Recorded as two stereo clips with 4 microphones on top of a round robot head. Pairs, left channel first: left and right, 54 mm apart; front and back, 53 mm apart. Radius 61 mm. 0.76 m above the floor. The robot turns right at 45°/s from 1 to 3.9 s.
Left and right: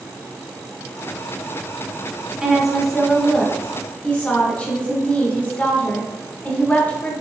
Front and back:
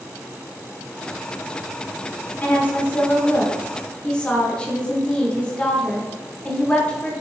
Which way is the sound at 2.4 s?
15° right.